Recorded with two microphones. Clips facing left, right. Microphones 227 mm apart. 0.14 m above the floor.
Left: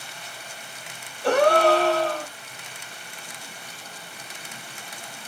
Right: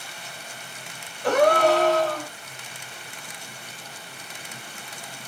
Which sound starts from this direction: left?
A gasp, at 1.2 s.